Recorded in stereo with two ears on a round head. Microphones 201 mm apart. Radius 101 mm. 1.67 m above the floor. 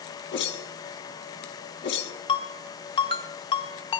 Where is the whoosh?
50° left (ahead or behind), 1.2 m.